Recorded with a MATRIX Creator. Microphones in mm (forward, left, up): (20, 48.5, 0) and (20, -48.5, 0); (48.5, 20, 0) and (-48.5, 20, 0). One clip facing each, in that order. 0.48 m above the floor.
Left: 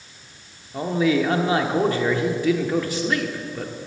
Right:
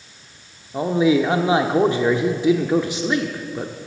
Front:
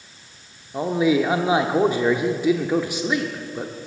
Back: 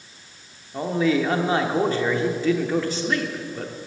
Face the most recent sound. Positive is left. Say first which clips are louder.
# right 3 dB, front 2 dB
turn(degrees=-55)